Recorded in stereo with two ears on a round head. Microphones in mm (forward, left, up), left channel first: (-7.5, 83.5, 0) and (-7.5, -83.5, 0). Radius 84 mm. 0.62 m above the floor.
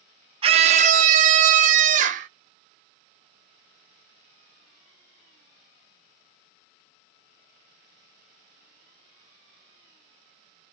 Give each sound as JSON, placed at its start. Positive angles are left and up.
{"t": 0.4, "sound": "a scream", "side_deg": -30, "distance_m": 0.7}